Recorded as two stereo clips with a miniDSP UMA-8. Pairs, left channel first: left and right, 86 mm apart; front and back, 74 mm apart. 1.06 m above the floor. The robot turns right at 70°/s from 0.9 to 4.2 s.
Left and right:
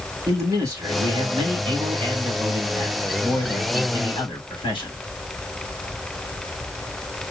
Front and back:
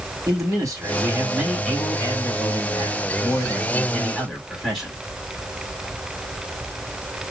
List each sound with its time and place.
0.3 s a man speaking: 140° right, 3.5 m; by 4.9 s 90° left, 3.5 m